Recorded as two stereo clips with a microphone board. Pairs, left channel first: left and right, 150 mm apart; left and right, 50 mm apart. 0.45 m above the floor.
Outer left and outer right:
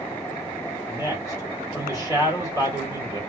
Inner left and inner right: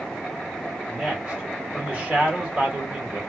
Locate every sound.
0.9 s a man speaking: 20° right (ahead or behind), 1.3 m